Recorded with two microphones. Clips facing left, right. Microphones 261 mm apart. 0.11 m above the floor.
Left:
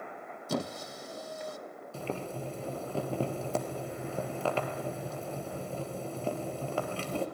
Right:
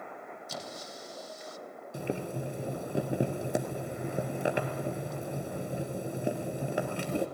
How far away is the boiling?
About 2.5 m.